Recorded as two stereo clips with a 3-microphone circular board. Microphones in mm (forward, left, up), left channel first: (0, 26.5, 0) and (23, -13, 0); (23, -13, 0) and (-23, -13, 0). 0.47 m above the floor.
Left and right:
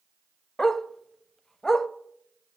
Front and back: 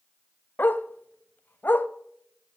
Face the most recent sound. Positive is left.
turn(degrees=45)